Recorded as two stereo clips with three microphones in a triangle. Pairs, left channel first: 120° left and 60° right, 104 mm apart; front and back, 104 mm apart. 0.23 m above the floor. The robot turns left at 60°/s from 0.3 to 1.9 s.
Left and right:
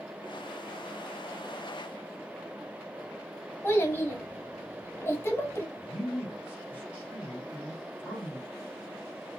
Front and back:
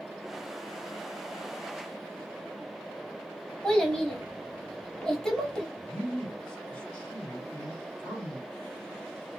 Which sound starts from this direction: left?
A child speaking, at 3.6 s.